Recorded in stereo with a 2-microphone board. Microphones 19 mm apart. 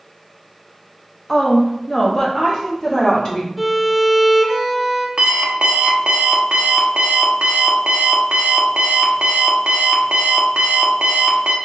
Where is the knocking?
No knocking in this recording.